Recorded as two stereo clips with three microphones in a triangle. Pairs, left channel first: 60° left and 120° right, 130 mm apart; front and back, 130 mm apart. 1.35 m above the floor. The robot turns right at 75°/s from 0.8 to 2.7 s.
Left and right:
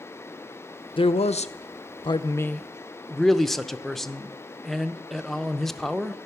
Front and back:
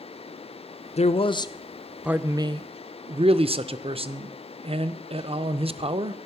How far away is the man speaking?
About 0.5 m.